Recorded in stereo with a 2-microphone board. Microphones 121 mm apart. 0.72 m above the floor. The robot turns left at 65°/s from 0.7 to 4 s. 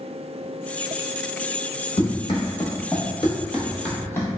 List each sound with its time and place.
2.0 s running footsteps: 55° left (ahead or behind), 1.2 m; by 4.3 s 25° left (ahead or behind), 0.9 m